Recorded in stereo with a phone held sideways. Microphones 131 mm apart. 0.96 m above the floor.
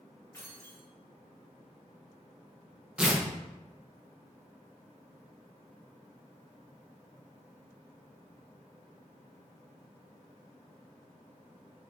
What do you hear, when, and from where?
0.3 s keys jangling: 20° left (ahead or behind), 1.6 m
3.0 s tearing paper: 5° right (ahead or behind), 0.7 m